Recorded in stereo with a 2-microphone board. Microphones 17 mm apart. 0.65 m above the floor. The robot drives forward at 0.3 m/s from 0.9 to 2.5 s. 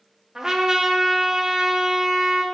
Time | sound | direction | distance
0.3 | a trumpet | 30° right (ahead or behind) | 0.6 m